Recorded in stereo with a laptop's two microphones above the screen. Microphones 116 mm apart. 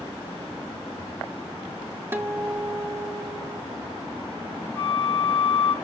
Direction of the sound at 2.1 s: 20° right (ahead or behind).